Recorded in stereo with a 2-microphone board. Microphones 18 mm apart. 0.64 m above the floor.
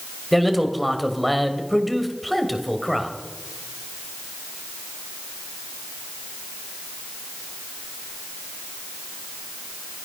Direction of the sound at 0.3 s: Centre (ahead or behind).